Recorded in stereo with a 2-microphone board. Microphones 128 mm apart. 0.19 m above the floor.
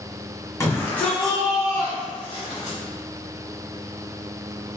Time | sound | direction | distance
0.6 | a shout | 20° left (ahead or behind) | 1.3 m